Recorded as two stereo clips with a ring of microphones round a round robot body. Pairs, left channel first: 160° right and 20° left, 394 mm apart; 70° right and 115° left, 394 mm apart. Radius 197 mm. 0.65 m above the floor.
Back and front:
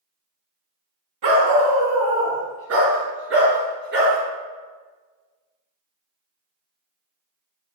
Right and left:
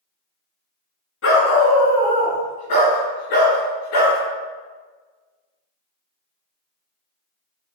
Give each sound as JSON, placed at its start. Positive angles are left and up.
{"t": 1.2, "sound": "a dog barking", "azimuth_deg": -10, "distance_m": 2.5}